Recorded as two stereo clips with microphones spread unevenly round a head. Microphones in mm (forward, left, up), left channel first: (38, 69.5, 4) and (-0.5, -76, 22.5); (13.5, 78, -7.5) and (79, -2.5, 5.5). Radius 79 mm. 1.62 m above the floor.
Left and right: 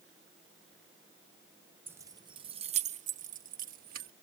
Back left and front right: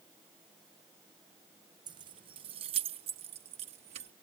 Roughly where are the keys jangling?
Ahead right.